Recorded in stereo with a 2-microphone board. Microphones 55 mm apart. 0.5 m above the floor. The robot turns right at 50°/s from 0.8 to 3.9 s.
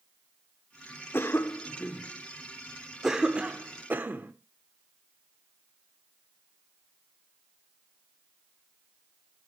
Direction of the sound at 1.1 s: 45° left (ahead or behind).